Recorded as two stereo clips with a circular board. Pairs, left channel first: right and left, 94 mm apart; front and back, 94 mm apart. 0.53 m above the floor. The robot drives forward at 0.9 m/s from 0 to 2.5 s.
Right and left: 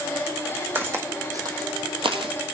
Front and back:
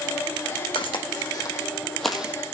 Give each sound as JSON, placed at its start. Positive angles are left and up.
{"t": 0.8, "sound": "footsteps", "azimuth_deg": 25, "distance_m": 2.0}